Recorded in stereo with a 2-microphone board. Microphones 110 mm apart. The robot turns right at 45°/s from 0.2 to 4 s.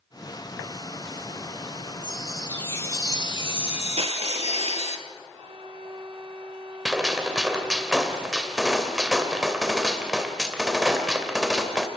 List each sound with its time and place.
2.0 s a chime: 10° right, 1.7 m; by 5.0 s 80° left, 1.7 m
4.0 s crushing: 65° right (ahead or behind), 2.5 m; by 5.0 s 60° right (ahead or behind), 2.5 m
5.3 s a violin: 60° right (ahead or behind), 1.2 m
6.8 s a gunshot: 5° right (ahead or behind), 2 m